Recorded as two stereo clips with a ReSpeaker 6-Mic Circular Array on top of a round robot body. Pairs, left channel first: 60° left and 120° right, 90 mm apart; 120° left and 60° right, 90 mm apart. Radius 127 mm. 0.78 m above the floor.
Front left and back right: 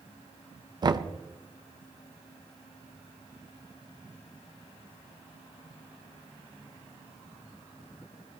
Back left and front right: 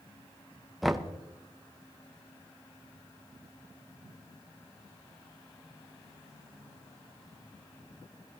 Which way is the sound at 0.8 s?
150° right.